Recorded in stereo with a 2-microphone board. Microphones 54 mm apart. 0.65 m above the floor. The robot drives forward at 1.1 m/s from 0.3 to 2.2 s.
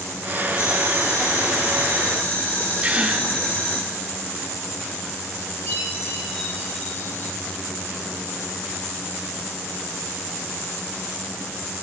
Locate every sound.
0.6 s boiling: 55° left (ahead or behind), 1.6 m; by 3.8 s 40° left (ahead or behind), 2 m
2.8 s a gasp: 20° right (ahead or behind), 0.7 m
5.7 s a chime: 35° left (ahead or behind), 5 m